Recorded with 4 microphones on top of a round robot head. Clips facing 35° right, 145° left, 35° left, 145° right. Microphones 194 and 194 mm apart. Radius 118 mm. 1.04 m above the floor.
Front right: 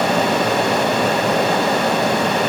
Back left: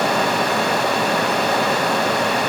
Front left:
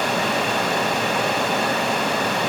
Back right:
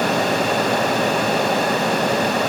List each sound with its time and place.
Only background noise.